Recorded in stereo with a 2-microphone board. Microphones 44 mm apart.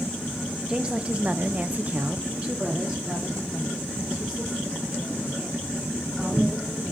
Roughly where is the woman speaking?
Centre.